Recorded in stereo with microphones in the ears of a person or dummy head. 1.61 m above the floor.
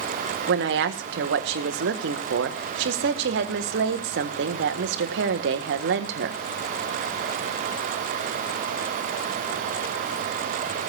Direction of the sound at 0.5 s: 75° right (ahead or behind).